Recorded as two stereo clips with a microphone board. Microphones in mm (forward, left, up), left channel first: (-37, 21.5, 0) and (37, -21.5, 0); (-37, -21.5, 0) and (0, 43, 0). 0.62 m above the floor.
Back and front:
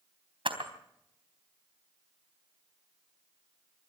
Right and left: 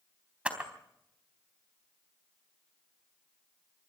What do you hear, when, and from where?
0.5 s a camera shutter: 15° right, 3.5 m